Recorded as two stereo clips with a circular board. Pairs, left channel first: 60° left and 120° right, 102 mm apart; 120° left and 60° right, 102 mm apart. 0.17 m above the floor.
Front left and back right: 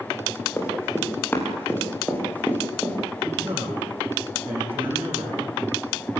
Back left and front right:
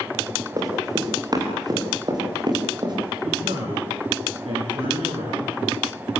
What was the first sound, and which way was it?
Running footsteps, 10° right.